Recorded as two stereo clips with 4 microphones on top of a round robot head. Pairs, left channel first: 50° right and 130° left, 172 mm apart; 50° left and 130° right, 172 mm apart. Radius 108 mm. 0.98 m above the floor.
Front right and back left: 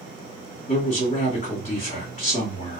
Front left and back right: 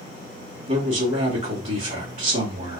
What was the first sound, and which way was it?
A man speaking, 85° right.